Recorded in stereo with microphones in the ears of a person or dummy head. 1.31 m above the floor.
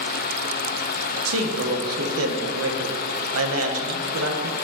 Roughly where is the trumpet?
I don't hear a trumpet.